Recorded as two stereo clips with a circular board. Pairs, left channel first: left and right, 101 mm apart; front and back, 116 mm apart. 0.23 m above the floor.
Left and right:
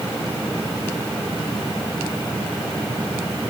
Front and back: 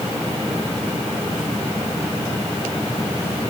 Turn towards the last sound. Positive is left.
No sound to turn to.